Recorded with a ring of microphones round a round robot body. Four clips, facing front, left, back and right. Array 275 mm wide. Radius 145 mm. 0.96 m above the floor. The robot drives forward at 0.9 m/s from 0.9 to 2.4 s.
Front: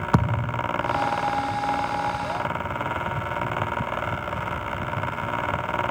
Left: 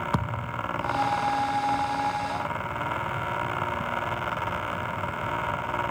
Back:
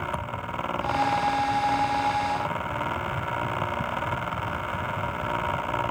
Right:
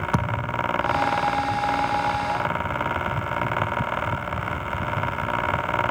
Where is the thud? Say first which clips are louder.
Right 5 dB, front 7 dB; 5° right.